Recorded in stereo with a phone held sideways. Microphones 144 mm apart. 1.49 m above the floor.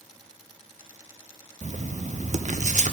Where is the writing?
55° right (ahead or behind), 0.6 m.